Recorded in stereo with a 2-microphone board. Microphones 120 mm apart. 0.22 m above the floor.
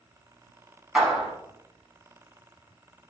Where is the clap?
5° right (ahead or behind), 1.7 m.